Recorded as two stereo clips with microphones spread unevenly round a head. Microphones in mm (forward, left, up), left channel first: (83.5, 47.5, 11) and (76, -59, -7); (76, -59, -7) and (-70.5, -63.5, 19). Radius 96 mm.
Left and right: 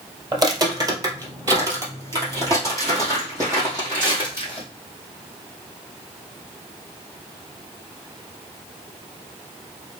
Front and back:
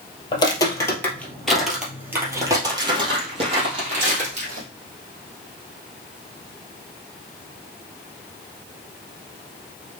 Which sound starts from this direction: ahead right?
Footsteps, at 0.3 s.